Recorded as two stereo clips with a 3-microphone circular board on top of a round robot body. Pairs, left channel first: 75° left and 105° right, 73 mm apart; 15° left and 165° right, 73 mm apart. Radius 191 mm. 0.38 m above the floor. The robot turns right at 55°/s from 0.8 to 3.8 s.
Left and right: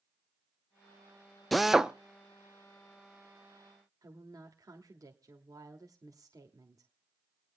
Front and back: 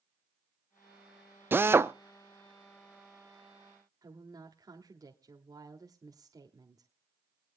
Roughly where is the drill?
Behind.